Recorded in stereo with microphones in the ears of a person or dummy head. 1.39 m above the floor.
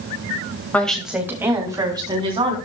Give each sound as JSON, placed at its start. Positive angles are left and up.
{"t": 0.7, "sound": "a woman speaking", "side_deg": 5, "distance_m": 2.0}